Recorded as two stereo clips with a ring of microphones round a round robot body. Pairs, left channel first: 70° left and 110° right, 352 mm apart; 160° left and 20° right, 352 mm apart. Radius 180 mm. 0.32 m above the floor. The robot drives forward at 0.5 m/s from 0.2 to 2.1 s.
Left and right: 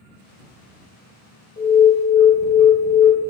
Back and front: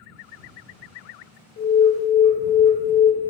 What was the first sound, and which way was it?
An alarm, 125° left.